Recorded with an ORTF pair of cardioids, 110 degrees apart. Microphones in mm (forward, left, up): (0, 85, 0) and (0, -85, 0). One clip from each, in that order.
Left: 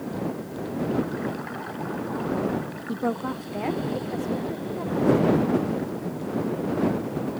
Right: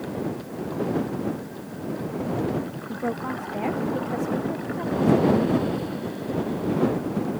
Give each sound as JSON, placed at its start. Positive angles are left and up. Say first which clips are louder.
{"t": 2.9, "sound": "a woman speaking", "louder": "left 1 dB", "azimuth_deg": 20}